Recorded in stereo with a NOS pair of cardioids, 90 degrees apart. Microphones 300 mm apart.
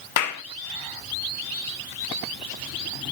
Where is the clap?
65° left, 1.5 m.